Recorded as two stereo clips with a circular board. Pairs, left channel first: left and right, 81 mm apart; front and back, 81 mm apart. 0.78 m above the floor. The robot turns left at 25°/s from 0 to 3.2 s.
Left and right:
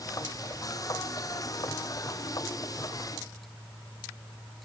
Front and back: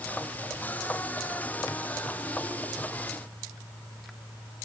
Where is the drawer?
I don't hear a drawer.